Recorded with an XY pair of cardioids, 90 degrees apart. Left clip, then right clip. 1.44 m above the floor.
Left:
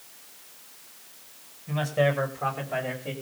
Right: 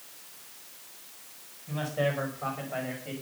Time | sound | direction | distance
1.7 | a man speaking | 60° left | 5 m